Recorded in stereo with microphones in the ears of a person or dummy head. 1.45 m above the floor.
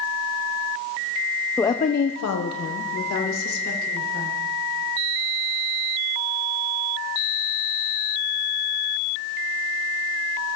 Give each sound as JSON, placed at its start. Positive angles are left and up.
{"t": 1.6, "sound": "a woman speaking", "side_deg": 5, "distance_m": 0.7}